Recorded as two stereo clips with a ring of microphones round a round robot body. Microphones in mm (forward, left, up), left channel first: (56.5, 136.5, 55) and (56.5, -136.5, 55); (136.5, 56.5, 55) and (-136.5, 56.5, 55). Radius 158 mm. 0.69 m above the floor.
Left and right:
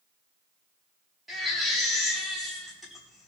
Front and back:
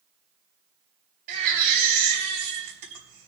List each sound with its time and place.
1.3 s a baby crying: straight behind, 3.5 m